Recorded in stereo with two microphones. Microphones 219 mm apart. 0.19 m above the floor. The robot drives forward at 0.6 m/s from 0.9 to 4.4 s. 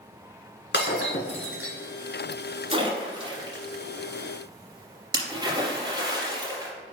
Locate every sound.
0.7 s breaking glass: 60° left (ahead or behind), 1.4 m; by 1.8 s 65° left (ahead or behind), 1.3 m
2.7 s a splash: 25° right (ahead or behind), 1.9 m; by 6.7 s 20° right (ahead or behind), 2.5 m